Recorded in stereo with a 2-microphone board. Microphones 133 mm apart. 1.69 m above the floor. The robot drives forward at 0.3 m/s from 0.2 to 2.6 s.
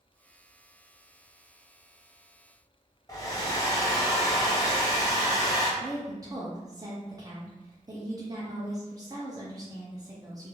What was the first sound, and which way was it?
A hair dryer, 25° left (ahead or behind).